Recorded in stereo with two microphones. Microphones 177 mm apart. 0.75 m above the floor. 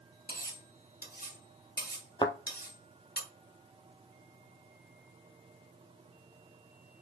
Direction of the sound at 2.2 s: 25° left (ahead or behind).